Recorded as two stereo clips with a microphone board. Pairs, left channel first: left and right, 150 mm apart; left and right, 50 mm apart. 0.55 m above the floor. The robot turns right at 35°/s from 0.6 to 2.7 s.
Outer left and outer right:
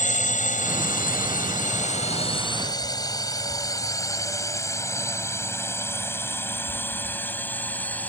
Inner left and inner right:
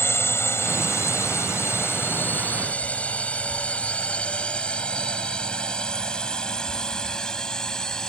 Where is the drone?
55° left (ahead or behind); by 8.1 s 10° left (ahead or behind).